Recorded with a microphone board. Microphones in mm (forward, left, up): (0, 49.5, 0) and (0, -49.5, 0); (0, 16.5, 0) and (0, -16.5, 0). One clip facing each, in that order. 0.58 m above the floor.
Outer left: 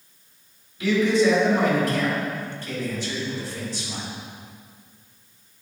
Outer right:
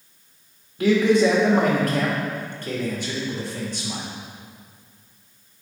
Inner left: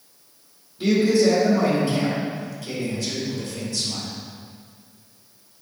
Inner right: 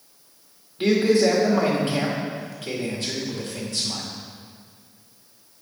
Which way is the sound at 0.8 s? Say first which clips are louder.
Outer right 2 dB, even; 55° right (ahead or behind).